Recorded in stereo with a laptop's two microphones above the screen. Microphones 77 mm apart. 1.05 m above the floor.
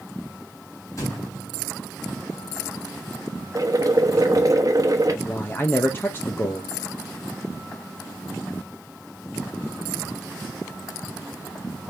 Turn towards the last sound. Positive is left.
turn(degrees=30)  # may be behind; listen again after turning